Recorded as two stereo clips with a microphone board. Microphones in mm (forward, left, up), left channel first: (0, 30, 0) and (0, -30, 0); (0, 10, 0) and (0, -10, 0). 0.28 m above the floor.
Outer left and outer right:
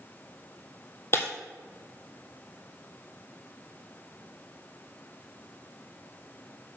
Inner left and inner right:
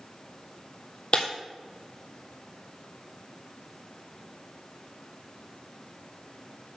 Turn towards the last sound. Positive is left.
turn(degrees=45)  # may be behind; listen again after turning